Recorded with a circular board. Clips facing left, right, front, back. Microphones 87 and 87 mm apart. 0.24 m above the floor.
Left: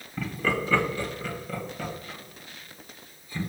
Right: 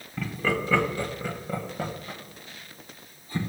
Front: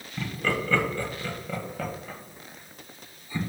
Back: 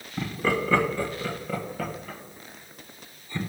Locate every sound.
0.2 s laughter: 175° left, 1.4 m; by 3.4 s 75° right, 2.5 m